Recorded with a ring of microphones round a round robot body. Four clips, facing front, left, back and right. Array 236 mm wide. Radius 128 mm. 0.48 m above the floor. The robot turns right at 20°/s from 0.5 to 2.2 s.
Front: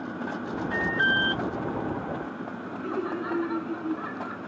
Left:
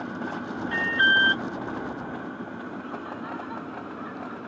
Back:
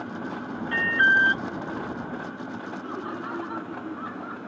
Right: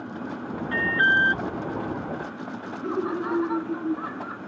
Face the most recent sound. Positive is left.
turn(degrees=-70)